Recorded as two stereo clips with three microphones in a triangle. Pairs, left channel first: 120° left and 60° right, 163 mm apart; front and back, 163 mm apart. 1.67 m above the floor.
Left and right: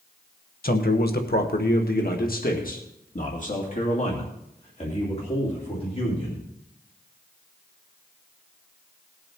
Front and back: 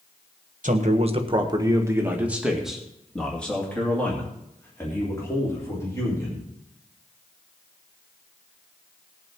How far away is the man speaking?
About 1.4 m.